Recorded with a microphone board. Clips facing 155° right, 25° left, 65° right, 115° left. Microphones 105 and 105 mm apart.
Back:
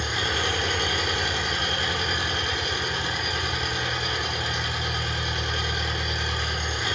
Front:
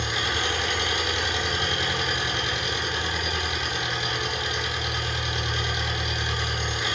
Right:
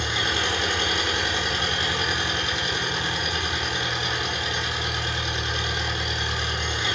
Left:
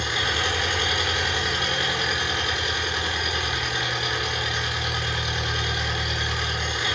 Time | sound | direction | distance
0.0 | an engine running | 125° right | 0.9 m